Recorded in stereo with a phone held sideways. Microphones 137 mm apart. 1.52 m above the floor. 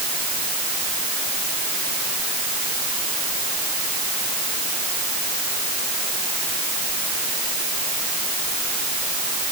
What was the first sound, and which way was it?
Only background noise.